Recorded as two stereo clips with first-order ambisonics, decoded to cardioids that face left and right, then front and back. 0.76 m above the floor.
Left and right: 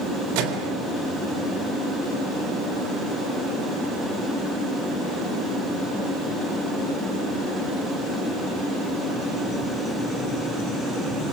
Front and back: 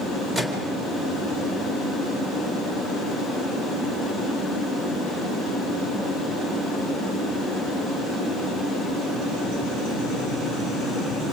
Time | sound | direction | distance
0.3 | a microwave | 105° right | 3.5 m